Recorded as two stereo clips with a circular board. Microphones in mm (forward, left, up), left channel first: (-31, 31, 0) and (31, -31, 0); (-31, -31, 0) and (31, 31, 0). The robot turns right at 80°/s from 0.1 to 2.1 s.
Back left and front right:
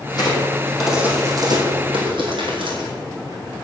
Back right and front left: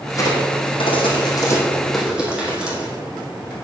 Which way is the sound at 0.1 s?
165° left.